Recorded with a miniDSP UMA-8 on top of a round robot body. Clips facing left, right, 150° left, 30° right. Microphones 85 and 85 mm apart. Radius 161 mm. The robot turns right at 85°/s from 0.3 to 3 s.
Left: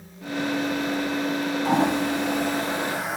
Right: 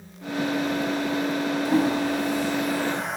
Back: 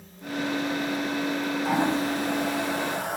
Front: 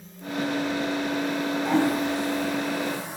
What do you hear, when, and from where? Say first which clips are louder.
1.6 s a toilet flushing: left 1 dB, front 2 dB; 65° left, 2 m; by 3.2 s straight behind, 2 m